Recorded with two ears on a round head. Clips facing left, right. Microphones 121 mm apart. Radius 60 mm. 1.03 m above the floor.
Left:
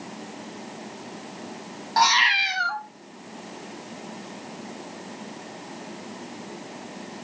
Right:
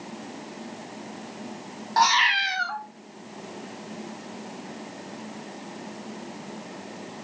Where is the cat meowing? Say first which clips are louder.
Even; centre (ahead or behind), 0.6 m.